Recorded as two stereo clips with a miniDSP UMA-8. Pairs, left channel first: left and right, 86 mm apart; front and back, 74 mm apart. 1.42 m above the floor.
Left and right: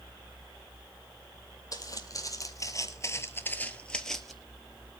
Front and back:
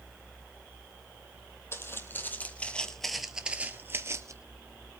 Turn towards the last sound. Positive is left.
turn(degrees=180)